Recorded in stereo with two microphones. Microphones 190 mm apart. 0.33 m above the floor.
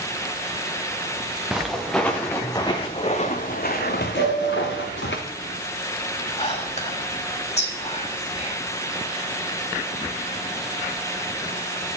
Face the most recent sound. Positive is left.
turn(degrees=35)  # may be behind; listen again after turning